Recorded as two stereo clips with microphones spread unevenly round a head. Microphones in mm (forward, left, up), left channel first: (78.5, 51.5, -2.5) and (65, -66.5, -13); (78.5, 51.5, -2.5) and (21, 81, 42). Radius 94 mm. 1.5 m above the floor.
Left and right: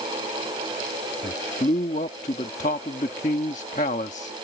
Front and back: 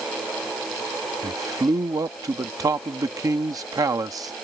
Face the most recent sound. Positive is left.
turn(degrees=130)